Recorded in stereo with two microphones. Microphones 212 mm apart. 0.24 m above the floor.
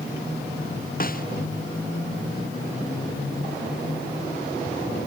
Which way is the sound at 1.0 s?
40° left (ahead or behind).